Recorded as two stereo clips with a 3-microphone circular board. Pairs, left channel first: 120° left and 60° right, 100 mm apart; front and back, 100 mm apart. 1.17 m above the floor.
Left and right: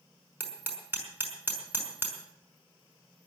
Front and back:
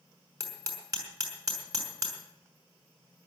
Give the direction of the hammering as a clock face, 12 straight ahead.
4 o'clock.